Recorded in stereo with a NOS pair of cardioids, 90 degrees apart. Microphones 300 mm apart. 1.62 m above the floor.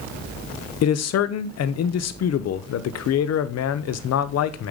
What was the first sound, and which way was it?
A man speaking, 55° left.